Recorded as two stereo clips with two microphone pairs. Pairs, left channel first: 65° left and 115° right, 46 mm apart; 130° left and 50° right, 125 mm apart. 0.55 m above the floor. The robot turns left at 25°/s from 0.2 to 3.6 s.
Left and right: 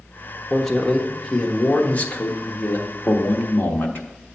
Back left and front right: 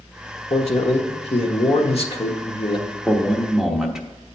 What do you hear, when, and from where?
0.5 s a man speaking: 150° left, 1.1 m; by 3.0 s 90° left, 1.1 m
3.0 s a man speaking: 50° left, 1.0 m; by 4.3 s 40° left, 1.0 m